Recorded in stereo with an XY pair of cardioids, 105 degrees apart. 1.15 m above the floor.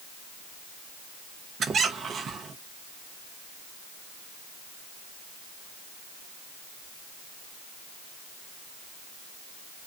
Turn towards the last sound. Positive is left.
turn(degrees=-50)